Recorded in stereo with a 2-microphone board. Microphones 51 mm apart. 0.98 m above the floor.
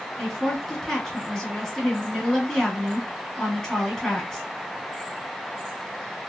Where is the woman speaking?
15° left (ahead or behind), 1.9 m.